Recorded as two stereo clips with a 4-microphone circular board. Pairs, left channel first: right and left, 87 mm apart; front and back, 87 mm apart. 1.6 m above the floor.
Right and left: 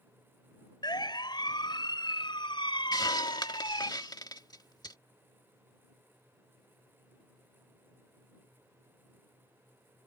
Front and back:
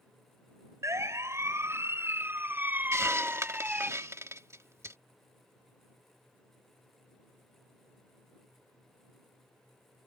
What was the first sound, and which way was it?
A siren, 125° right.